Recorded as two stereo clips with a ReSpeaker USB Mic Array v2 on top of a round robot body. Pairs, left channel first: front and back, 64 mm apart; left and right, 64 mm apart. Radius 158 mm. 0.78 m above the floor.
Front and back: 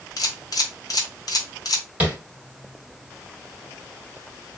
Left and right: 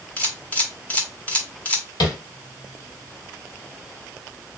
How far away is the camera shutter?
About 0.9 m.